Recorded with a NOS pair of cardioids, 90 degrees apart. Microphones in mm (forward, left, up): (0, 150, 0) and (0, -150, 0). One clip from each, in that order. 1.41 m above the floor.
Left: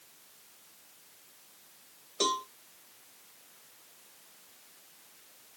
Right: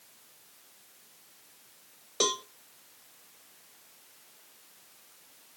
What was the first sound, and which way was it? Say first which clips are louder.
A cowbell: right 1 dB; 30° right.